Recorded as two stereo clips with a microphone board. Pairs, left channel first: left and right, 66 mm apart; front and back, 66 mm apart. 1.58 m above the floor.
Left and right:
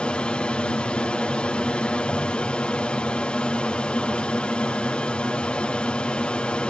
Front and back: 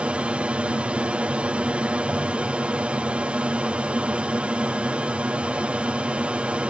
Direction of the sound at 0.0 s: 140° left.